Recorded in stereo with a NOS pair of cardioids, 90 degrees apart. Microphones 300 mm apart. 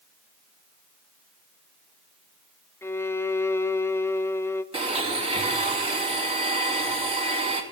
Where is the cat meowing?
No cat meowing in this recording.